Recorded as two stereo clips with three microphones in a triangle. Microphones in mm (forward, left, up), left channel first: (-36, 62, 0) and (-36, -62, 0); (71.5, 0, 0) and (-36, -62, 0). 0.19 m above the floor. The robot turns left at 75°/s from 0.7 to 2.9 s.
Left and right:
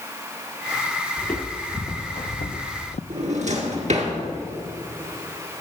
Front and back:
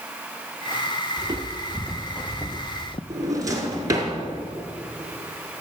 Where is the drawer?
90° right, 1.9 m.